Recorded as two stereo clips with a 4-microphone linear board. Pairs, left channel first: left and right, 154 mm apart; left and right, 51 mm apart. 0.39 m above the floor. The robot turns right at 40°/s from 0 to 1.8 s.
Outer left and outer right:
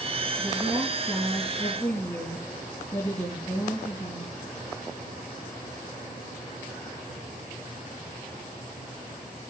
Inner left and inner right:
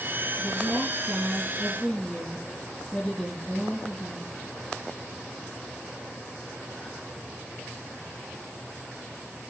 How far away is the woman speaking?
About 4.5 m.